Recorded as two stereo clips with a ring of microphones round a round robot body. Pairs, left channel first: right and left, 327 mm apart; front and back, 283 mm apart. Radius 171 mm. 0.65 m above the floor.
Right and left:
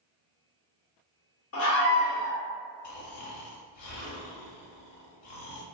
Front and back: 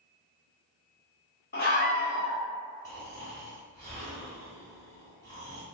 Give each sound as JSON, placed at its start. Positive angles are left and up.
{"t": 1.5, "sound": "a scream", "azimuth_deg": -50, "distance_m": 1.0}
{"t": 2.8, "sound": "snoring", "azimuth_deg": -80, "distance_m": 1.0}